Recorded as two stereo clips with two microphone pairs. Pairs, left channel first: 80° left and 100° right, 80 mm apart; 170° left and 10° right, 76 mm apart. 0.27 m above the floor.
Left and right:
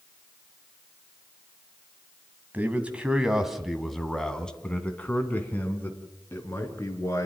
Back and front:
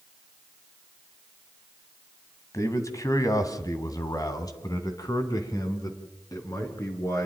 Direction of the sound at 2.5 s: 160° right.